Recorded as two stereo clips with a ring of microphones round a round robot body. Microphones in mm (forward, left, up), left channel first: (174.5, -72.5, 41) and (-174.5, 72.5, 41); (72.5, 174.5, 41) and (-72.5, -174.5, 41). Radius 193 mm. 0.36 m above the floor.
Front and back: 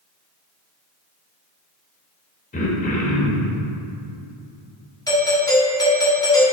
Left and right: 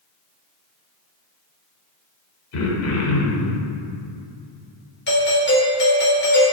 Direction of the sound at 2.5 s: 40° left.